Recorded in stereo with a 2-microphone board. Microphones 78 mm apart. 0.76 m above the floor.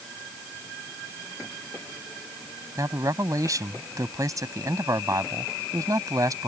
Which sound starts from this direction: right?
A man speaking, at 2.8 s.